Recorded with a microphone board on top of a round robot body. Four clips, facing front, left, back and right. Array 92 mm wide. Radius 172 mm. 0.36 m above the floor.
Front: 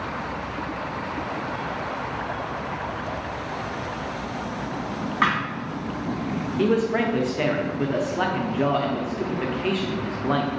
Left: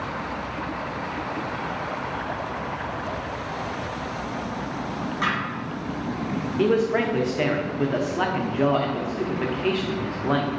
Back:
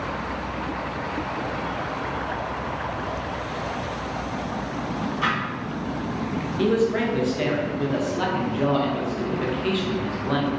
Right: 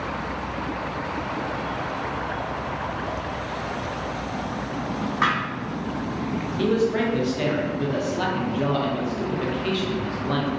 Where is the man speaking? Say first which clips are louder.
Left 1 dB, even; 55° left, 0.9 m.